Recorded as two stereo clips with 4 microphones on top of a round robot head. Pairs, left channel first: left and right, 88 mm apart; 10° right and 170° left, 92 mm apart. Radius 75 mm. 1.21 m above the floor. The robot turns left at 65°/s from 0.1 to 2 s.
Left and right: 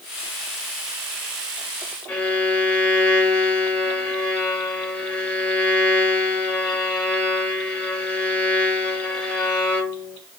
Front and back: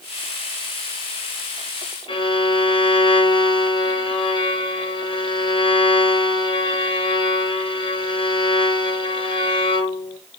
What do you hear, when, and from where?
2.1 s a violin: 15° left, 0.9 m